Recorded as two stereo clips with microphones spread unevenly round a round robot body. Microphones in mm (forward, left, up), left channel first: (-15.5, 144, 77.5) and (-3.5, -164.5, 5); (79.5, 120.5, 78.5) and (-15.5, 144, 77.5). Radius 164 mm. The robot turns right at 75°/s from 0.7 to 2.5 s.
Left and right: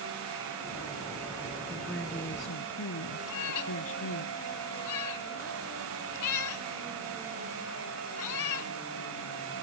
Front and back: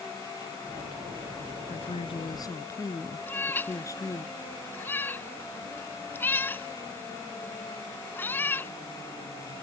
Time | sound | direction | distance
1.7 | a woman speaking | 20° right | ?
3.3 | a cat meowing | 55° left | ?